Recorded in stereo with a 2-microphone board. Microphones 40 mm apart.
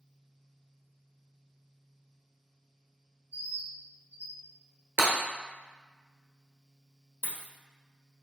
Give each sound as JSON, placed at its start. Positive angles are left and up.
{"t": 3.3, "sound": "a bird", "side_deg": -60, "distance_m": 1.9}
{"t": 5.0, "sound": "breaking glass", "side_deg": -60, "distance_m": 1.1}
{"t": 7.2, "sound": "a dropped coin", "side_deg": 65, "distance_m": 1.2}